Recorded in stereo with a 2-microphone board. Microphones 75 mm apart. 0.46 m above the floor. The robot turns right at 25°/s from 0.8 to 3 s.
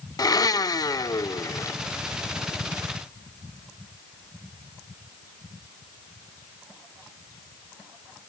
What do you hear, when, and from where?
0.2 s a blender: 55° left (ahead or behind), 0.5 m; by 1.8 s 40° left (ahead or behind), 0.5 m